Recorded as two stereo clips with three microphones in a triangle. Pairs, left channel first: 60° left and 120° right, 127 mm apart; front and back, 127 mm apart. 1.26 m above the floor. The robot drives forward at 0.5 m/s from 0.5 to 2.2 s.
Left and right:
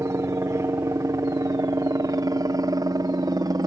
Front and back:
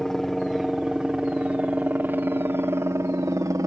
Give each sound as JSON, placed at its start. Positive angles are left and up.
{"t": 0.0, "sound": "a helicopter", "azimuth_deg": -85}